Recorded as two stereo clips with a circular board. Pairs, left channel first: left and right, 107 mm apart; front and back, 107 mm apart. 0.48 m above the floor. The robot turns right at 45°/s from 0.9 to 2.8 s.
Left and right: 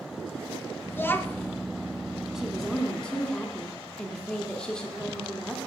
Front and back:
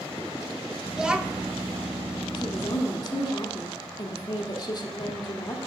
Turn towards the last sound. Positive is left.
turn(degrees=10)